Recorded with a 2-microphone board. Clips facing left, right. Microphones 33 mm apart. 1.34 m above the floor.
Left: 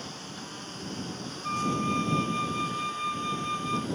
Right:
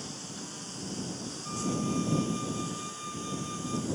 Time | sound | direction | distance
0.0 | a lawn mower | 15° left (ahead or behind) | ?
1.4 | a flute | 60° left (ahead or behind) | ?